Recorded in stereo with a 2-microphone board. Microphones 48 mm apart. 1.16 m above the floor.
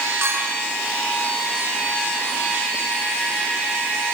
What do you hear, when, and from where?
0.2 s a clink: 60° right (ahead or behind), 9 m